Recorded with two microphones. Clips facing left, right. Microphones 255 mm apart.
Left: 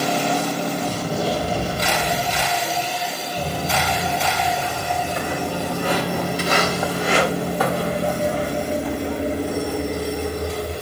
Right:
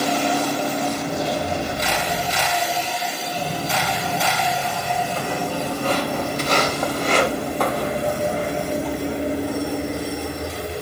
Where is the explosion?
35° left (ahead or behind), 6 m.